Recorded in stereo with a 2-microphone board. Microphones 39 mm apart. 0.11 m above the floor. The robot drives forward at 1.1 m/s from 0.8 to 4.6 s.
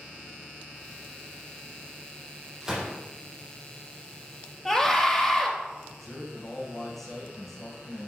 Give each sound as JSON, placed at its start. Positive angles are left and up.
{"t": 2.6, "sound": "a gunshot", "side_deg": -10, "distance_m": 4.5}
{"t": 4.7, "sound": "a scream", "side_deg": 0, "distance_m": 1.9}
{"t": 6.0, "sound": "a man speaking", "side_deg": 5, "distance_m": 6.0}